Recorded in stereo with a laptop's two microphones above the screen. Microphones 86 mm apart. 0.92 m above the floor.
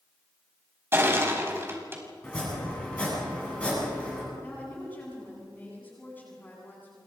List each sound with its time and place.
0.9 s crushing: 25° right (ahead or behind), 4.5 m
2.2 s chopping: 15° left (ahead or behind), 8.5 m
4.4 s a woman speaking: 20° left (ahead or behind), 9.5 m